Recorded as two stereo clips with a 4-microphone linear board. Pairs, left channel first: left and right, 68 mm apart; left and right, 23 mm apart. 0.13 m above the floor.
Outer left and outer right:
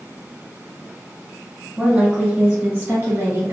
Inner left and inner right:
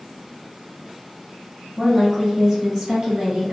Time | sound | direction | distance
1.8 | a woman speaking | 5° right (ahead or behind) | 1.3 m